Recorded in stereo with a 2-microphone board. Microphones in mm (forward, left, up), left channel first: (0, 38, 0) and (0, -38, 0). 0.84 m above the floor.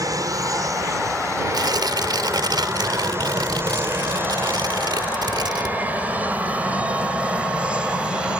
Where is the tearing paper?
70° right (ahead or behind).